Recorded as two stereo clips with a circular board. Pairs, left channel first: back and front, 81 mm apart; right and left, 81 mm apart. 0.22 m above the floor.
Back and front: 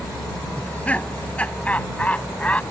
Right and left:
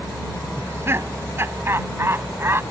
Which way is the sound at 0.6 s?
120° left.